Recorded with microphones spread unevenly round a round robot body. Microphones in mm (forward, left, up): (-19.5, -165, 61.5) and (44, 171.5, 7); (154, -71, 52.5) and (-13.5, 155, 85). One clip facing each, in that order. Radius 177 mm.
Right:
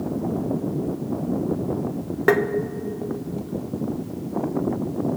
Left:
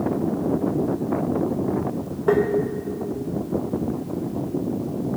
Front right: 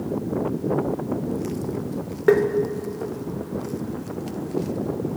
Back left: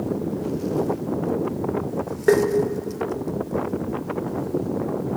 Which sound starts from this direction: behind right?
Tapping, at 2.3 s.